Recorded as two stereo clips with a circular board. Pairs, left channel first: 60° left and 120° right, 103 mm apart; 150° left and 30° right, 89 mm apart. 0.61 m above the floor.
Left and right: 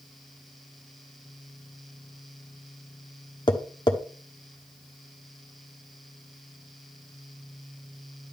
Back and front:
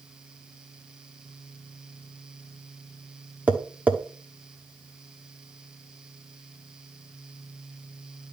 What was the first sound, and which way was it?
Tapping, 40° left.